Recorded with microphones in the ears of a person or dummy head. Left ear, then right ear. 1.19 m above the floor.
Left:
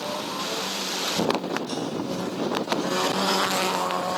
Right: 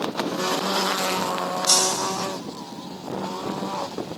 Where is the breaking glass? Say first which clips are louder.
Right 9 dB; 60° right (ahead or behind).